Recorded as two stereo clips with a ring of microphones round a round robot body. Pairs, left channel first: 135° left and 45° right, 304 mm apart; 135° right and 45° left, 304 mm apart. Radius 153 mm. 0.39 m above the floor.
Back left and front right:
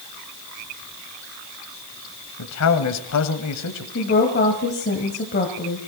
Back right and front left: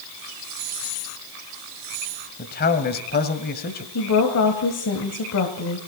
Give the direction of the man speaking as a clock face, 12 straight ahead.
6 o'clock.